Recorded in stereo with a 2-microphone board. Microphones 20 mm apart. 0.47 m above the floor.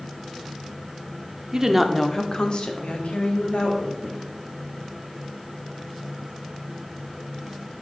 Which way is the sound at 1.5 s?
30° right (ahead or behind).